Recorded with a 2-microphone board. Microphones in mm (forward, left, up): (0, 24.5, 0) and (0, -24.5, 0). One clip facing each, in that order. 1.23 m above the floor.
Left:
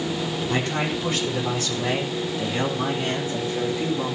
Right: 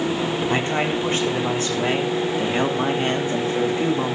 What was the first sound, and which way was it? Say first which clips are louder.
A man speaking: right 1 dB; 30° right (ahead or behind).